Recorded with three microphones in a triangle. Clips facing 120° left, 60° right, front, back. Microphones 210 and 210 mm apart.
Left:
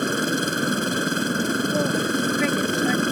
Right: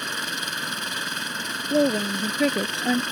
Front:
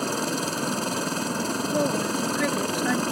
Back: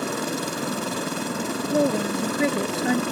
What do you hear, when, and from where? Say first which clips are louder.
0.0 s a helicopter: left 14 dB, even; 95° left
1.7 s a woman speaking: right 1 dB, back 5 dB; 115° right